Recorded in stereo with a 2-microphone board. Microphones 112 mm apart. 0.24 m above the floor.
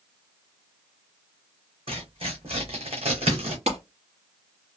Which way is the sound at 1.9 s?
55° right (ahead or behind).